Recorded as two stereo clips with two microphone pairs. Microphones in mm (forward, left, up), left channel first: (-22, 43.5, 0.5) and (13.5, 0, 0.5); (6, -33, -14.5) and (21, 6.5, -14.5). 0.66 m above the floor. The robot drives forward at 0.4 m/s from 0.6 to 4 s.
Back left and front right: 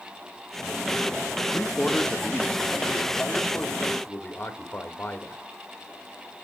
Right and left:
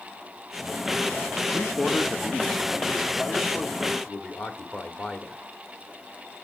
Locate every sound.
1.5 s a man speaking: straight behind, 0.7 m